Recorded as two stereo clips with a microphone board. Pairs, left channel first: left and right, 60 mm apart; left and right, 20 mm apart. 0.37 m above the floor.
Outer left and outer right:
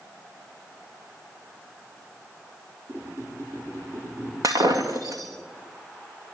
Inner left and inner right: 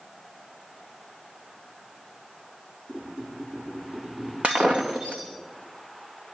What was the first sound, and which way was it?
A squeak, 45° right (ahead or behind).